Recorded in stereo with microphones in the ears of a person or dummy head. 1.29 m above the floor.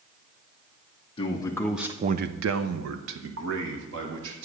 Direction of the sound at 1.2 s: 20° left (ahead or behind).